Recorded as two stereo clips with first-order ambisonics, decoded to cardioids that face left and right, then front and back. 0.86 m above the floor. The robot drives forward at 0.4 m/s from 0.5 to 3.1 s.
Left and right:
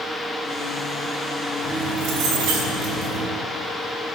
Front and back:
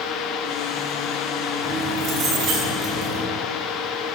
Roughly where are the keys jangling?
Behind right.